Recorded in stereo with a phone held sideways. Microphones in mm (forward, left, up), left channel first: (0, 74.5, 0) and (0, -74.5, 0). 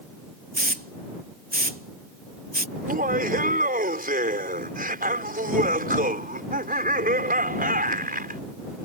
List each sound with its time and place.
0.5 s a hiss: 80° right
2.8 s laughter: 75° right (ahead or behind)